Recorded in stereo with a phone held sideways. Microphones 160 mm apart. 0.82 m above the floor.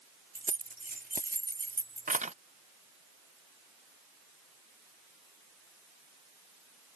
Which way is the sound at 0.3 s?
60° right (ahead or behind).